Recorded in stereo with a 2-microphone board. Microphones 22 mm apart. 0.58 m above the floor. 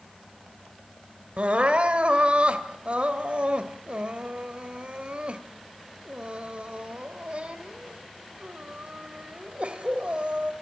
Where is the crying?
55° right (ahead or behind), 2.5 m.